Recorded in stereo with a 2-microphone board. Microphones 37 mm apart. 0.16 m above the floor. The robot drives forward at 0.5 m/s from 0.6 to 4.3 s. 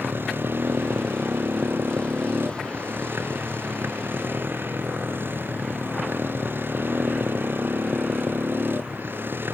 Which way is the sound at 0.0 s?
85° right.